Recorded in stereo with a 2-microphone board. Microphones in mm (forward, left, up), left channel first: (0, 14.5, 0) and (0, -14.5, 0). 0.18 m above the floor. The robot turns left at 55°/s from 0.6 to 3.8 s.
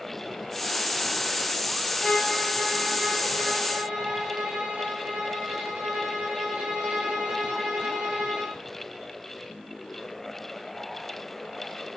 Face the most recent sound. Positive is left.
turn(degrees=-75)